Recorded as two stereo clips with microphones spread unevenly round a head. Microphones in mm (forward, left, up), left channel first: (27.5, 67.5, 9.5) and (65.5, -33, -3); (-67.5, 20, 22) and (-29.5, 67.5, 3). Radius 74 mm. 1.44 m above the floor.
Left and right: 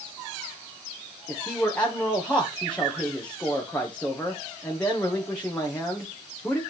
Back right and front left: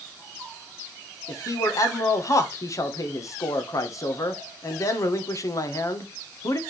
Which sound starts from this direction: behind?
A man speaking, at 1.3 s.